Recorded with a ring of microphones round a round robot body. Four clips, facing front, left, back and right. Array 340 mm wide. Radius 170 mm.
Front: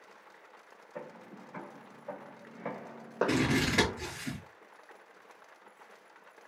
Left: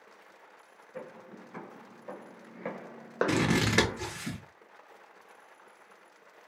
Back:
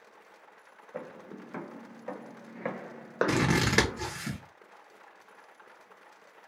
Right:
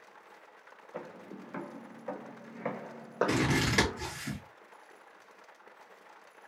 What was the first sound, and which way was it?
Footsteps, 150° right.